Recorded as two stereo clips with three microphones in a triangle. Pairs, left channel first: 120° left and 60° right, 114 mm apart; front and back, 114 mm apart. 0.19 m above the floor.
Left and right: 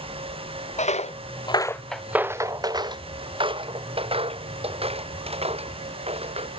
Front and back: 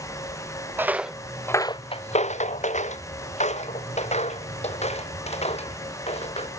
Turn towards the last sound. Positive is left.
turn(degrees=-30)